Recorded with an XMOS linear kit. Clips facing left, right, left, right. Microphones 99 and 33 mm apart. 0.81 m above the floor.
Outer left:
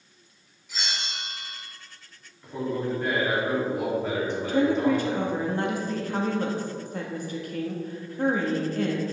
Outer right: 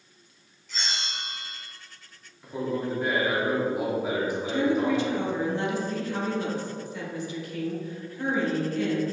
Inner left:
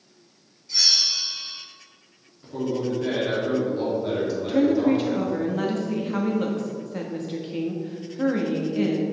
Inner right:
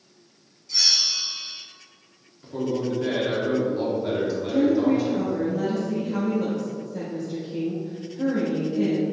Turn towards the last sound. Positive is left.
turn(degrees=50)  # may be behind; listen again after turning